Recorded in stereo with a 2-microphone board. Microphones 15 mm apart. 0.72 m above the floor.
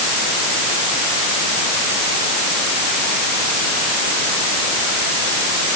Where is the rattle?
No rattle in this recording.